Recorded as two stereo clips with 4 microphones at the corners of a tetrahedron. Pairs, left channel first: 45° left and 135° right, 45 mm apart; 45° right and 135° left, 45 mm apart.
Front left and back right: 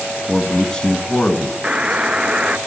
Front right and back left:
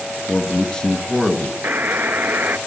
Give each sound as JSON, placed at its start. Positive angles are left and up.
{"t": 0.3, "sound": "a man speaking", "azimuth_deg": -20, "distance_m": 1.4}
{"t": 1.6, "sound": "a buzzer", "azimuth_deg": 165, "distance_m": 0.7}